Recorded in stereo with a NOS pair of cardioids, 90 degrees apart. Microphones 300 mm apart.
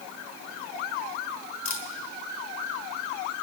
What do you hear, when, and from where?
1.6 s a camera shutter: 60° left, 2.5 m